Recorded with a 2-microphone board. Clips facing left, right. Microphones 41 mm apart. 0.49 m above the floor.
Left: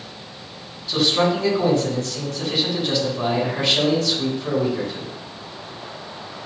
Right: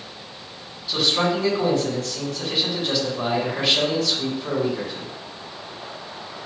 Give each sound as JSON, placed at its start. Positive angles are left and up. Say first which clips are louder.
{"t": 0.9, "sound": "a man speaking", "louder": "left 2 dB", "side_deg": 0, "distance_m": 4.0}